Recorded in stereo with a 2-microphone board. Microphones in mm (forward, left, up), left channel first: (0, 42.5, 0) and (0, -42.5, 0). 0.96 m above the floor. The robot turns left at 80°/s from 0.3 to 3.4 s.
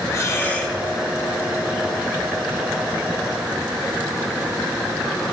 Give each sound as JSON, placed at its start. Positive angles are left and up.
{"t": 0.1, "sound": "breathing", "azimuth_deg": 35, "distance_m": 2.0}